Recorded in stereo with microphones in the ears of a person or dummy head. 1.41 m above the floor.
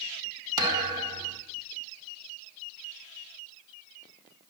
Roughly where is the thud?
Right.